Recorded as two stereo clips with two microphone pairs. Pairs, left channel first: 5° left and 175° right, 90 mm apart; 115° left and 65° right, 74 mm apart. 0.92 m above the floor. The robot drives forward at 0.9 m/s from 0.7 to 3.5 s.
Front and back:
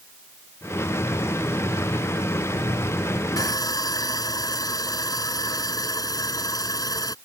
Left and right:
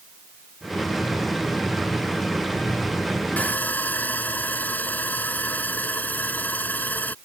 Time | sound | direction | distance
3.4 | sawing | 50° left | ?